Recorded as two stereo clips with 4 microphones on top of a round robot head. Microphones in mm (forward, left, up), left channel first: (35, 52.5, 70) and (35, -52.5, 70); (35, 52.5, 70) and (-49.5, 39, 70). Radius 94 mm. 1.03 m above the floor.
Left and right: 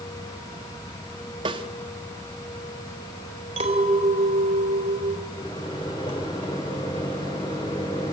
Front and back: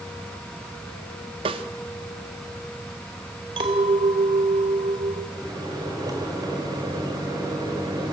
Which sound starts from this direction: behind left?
A microwave, at 5.3 s.